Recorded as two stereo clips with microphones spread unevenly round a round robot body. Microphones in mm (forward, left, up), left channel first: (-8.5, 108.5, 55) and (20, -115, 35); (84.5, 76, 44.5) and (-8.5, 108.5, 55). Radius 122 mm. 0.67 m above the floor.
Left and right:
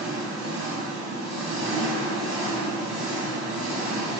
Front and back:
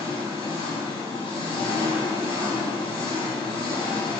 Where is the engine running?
Straight ahead, 0.9 m.